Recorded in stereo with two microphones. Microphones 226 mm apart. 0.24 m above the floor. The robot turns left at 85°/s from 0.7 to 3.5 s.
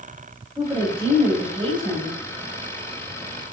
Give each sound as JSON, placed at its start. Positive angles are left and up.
{"t": 0.6, "sound": "a woman speaking", "side_deg": -15, "distance_m": 1.1}